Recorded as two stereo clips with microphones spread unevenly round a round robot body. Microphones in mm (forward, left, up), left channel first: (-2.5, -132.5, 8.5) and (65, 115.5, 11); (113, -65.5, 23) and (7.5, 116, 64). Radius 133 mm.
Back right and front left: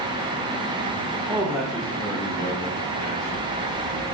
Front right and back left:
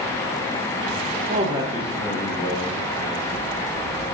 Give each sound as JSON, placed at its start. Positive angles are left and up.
{"t": 1.3, "sound": "a man speaking", "azimuth_deg": 140, "distance_m": 0.8}